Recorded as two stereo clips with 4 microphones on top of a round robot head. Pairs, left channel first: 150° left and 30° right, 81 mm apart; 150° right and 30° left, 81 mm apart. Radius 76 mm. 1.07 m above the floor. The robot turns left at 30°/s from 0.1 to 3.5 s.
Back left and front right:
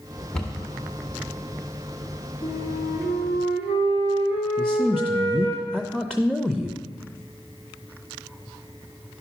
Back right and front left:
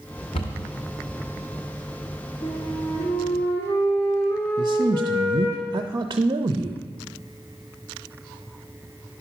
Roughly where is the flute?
Behind.